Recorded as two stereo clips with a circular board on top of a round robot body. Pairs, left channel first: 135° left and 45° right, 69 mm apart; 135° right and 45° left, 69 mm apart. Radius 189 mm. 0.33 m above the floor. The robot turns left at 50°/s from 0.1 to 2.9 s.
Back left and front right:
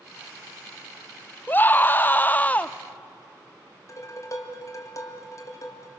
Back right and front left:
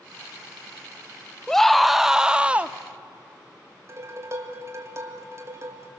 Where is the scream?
150° left, 0.8 m; by 2.8 s 85° left, 0.8 m.